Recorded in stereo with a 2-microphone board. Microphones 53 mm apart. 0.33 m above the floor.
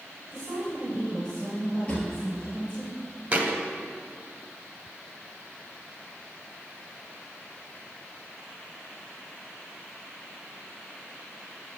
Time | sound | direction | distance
0.3 | a woman speaking | 15° right (ahead or behind) | 2 m
1.9 | a drawer | 25° left (ahead or behind) | 2 m
3.3 | a thud | 30° right (ahead or behind) | 0.8 m